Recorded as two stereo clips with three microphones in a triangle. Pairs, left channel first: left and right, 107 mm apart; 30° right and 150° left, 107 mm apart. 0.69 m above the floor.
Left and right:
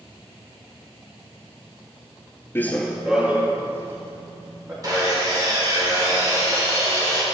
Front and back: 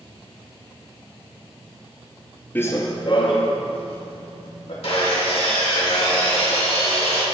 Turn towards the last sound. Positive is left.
turn(degrees=-40)